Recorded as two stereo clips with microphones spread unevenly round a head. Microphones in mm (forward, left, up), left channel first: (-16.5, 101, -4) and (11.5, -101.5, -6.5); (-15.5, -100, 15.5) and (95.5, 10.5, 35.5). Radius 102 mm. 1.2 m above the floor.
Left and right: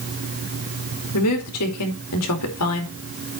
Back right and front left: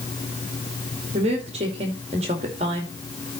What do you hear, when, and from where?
1.1 s a woman speaking: 110° left, 2.5 m